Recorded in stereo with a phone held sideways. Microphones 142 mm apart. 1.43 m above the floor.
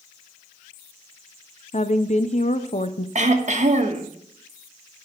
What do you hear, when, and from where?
1.7 s a woman speaking: 55° left (ahead or behind), 0.6 m
3.1 s throat clearing: 55° right (ahead or behind), 1.2 m